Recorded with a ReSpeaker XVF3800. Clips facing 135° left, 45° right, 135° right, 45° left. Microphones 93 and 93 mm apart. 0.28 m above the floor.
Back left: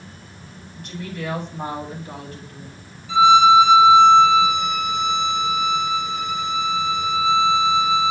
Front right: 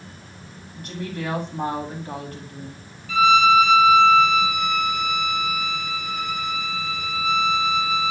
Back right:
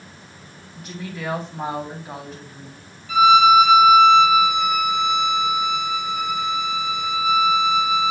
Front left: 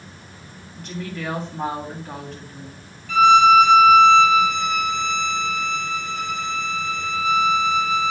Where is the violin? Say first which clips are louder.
Back left 4 dB, even; 160° left, 0.6 m.